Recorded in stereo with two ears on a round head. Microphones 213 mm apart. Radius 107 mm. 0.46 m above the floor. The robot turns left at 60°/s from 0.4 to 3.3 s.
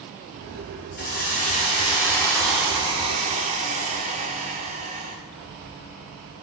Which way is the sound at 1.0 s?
90° left.